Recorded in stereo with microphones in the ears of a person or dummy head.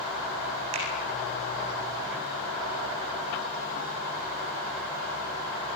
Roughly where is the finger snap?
Right.